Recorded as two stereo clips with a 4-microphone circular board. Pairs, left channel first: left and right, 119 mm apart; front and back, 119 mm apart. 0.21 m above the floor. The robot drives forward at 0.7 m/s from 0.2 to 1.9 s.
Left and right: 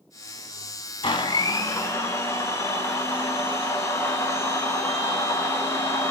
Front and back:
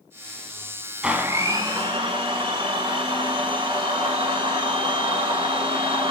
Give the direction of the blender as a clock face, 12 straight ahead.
9 o'clock.